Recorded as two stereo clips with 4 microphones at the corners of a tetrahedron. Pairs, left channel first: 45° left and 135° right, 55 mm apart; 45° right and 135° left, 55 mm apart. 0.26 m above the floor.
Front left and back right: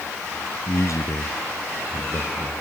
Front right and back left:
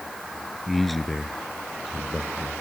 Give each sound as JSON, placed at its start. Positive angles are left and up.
{"t": 0.7, "sound": "a man speaking", "azimuth_deg": 40}